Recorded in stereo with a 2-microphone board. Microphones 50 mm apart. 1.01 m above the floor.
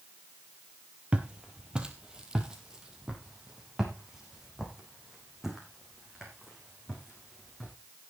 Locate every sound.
1.1 s footsteps: 20° right (ahead or behind), 1.7 m; by 7.7 s 5° right (ahead or behind), 5.5 m